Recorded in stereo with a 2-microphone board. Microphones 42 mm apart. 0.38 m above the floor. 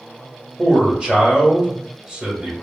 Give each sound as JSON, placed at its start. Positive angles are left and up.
{"t": 0.6, "sound": "a man speaking", "side_deg": -25, "distance_m": 1.1}